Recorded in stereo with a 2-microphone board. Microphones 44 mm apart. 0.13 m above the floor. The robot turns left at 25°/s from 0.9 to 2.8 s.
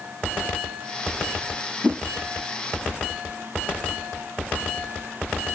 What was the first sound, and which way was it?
A whoosh, 35° right (ahead or behind).